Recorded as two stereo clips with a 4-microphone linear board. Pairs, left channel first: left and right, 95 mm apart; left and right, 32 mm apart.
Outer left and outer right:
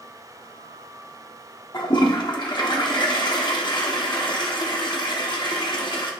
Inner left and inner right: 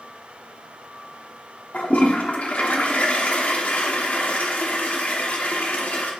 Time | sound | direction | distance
1.7 | a toilet flushing | 55° left (ahead or behind) | 1.1 m